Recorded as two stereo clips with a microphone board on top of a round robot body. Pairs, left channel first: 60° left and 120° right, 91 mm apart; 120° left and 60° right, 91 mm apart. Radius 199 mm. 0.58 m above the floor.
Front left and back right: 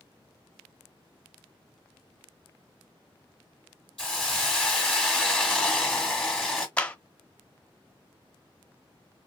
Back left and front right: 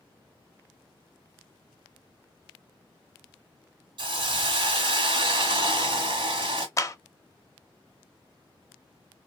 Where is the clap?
125° left, 0.9 m.